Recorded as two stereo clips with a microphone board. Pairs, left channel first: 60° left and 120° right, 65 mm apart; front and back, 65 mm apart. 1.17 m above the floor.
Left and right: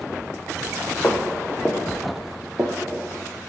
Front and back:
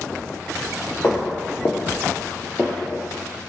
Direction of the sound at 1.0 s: 35° left.